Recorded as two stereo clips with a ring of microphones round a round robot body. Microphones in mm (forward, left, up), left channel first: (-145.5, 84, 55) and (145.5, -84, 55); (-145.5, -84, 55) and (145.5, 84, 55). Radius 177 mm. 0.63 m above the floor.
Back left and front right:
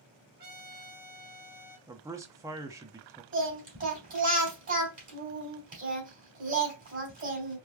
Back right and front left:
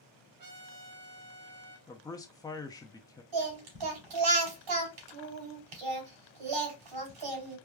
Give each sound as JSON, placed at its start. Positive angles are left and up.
{"t": 0.4, "sound": "a trumpet", "azimuth_deg": 25, "distance_m": 1.4}
{"t": 1.9, "sound": "a man speaking", "azimuth_deg": -95, "distance_m": 0.6}
{"t": 3.3, "sound": "singing", "azimuth_deg": 35, "distance_m": 3.0}